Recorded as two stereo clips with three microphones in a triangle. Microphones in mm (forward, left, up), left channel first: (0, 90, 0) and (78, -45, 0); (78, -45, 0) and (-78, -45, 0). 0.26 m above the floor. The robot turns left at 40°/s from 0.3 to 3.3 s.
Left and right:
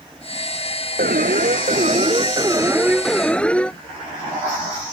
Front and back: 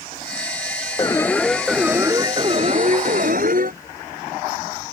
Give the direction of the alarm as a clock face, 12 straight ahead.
2 o'clock.